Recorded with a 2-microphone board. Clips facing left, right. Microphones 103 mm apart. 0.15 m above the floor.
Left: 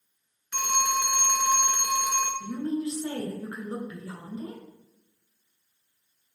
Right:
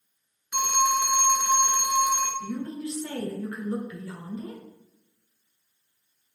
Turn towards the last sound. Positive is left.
turn(degrees=30)  # may be behind; listen again after turning